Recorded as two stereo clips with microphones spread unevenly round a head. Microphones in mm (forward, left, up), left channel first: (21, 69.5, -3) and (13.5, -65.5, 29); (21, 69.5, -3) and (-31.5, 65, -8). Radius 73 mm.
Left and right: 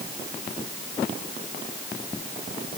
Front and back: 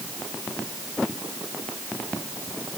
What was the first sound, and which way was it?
Only background noise.